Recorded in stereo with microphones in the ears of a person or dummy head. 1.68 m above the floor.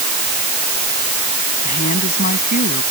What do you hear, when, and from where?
1.6 s a woman speaking: 45° left (ahead or behind)